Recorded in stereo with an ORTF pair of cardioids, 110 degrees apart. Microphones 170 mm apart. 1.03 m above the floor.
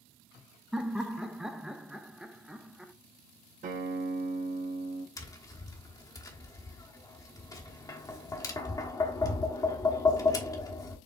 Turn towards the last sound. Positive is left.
turn(degrees=20)